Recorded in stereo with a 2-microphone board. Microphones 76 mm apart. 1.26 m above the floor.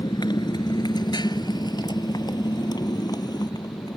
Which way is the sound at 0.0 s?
75° left (ahead or behind).